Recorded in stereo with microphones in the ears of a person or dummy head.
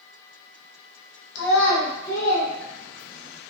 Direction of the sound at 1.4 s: 65° left (ahead or behind).